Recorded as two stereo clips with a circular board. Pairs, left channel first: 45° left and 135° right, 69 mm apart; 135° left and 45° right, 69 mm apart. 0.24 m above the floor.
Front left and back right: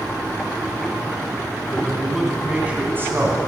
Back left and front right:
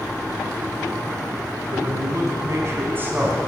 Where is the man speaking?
40° right, 2.0 m; by 3.4 s 110° right, 1.5 m.